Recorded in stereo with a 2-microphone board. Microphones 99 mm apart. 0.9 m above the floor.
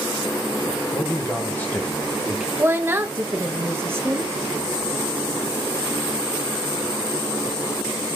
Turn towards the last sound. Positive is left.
turn(degrees=-20)  # may be behind; listen again after turning